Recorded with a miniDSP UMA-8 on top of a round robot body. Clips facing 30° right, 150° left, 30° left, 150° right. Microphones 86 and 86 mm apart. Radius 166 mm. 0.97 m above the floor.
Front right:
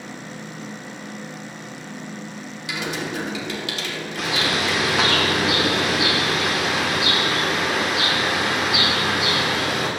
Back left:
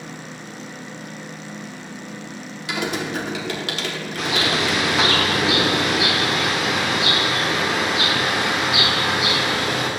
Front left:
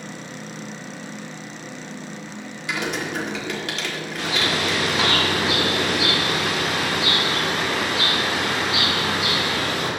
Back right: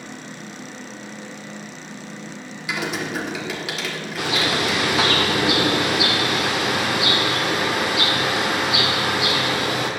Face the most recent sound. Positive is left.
turn(degrees=-120)